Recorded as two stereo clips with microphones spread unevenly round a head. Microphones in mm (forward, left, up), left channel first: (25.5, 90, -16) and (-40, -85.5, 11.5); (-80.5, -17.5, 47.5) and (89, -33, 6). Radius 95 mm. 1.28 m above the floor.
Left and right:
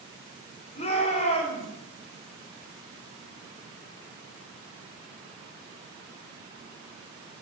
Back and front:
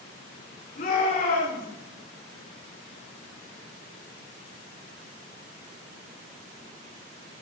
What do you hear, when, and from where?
0.8 s a shout: 130° left, 4.5 m